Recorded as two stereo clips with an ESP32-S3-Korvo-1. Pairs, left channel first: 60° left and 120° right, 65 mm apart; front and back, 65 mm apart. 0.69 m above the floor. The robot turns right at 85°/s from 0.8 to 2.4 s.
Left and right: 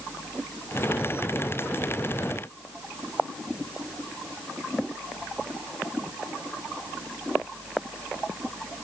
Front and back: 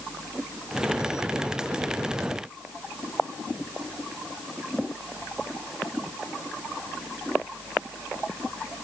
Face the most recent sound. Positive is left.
No sound to turn to.